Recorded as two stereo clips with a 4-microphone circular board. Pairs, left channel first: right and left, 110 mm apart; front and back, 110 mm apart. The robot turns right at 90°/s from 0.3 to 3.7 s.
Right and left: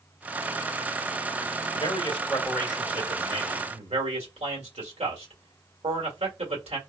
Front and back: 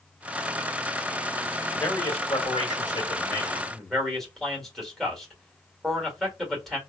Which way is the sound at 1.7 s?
90° right.